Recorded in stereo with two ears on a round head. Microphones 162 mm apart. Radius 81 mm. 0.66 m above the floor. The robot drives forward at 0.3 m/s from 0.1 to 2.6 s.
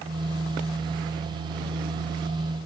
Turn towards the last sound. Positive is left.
No sound to turn to.